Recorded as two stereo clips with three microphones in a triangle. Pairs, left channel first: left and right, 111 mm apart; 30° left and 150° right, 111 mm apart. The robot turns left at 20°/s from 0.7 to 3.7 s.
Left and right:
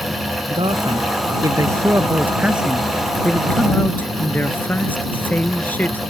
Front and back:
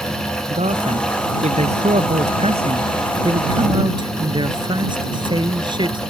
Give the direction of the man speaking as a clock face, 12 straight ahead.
4 o'clock.